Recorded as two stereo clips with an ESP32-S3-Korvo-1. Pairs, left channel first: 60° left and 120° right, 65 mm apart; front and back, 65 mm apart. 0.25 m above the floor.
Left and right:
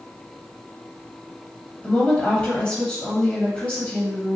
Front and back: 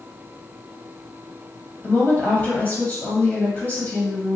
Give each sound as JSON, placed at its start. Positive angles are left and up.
{"t": 1.8, "sound": "a woman speaking", "azimuth_deg": 15, "distance_m": 1.0}